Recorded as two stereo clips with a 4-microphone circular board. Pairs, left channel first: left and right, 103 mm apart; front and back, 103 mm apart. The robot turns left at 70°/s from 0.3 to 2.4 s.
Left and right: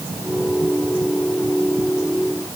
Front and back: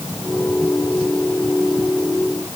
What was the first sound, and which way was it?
Only background noise.